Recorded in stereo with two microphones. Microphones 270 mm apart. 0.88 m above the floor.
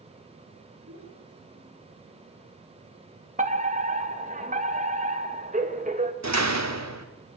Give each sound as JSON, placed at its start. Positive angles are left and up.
{"t": 0.9, "sound": "a child speaking", "side_deg": -55, "distance_m": 8.0}
{"t": 3.4, "sound": "a fire alarm", "side_deg": -30, "distance_m": 2.5}
{"t": 6.2, "sound": "a door slam", "side_deg": -80, "distance_m": 2.0}